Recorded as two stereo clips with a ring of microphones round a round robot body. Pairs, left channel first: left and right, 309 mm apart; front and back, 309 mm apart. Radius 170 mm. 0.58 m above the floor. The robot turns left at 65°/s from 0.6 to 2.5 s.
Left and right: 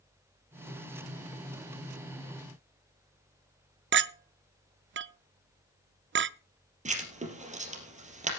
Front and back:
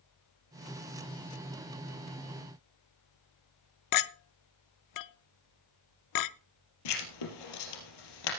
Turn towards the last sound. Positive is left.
turn(degrees=-20)